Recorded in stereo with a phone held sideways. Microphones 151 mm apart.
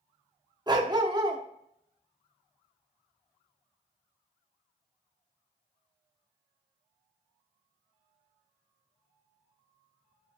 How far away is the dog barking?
About 0.8 m.